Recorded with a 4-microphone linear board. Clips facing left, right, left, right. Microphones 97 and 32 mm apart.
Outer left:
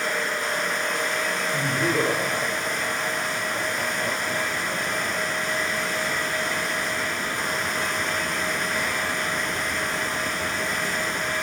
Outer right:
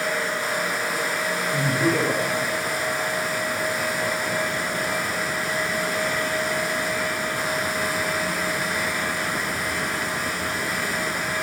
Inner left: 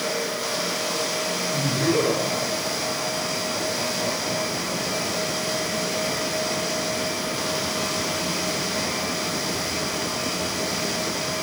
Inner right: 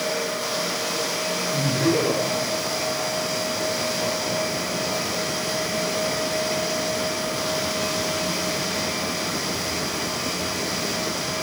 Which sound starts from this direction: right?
Laughter, at 1.5 s.